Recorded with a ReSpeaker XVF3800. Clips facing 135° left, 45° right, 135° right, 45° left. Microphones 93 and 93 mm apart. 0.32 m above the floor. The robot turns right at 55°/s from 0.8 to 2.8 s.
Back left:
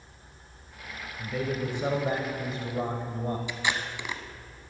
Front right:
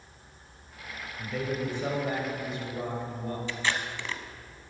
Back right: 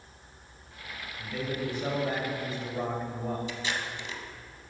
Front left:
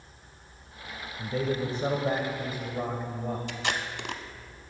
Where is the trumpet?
I don't hear a trumpet.